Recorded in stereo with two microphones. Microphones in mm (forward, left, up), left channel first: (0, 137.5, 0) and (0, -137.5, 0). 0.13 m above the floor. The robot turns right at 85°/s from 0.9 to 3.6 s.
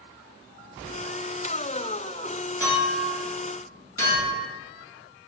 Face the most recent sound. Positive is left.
turn(degrees=55)  # may be behind; listen again after turning